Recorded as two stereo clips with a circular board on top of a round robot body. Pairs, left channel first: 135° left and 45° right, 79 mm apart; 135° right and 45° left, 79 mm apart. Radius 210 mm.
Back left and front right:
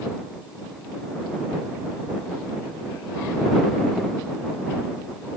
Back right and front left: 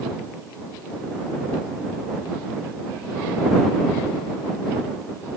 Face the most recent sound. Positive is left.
No sound to turn to.